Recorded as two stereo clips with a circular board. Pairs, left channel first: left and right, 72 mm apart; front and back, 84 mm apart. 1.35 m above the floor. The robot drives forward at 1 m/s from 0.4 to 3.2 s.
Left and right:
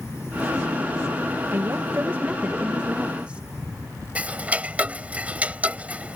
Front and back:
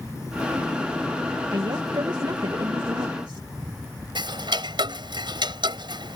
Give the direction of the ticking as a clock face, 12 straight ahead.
5 o'clock.